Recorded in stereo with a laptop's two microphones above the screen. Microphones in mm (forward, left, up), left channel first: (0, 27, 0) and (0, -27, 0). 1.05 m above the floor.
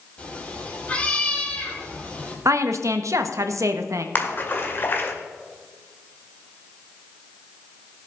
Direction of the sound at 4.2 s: 40° left (ahead or behind).